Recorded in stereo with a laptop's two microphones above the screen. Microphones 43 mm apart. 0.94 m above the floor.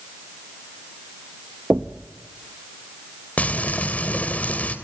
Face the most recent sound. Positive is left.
turn(degrees=35)  # may be behind; listen again after turning